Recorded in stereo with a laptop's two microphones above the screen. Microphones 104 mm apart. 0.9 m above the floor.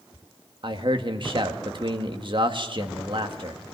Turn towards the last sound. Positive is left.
turn(degrees=-50)  # may be behind; listen again after turning